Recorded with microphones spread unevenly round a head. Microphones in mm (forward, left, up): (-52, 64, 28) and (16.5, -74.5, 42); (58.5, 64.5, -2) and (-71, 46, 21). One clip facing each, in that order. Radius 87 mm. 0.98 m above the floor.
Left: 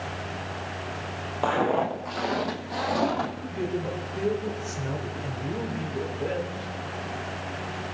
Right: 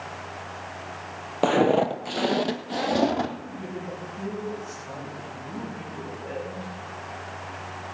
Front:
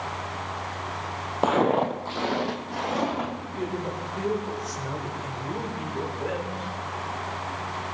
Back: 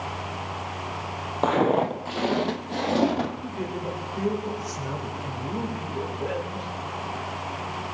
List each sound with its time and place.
1.4 s footsteps: 85° right, 1.3 m; by 3.3 s 125° right, 1.9 m
3.4 s a man speaking: 105° left, 3.5 m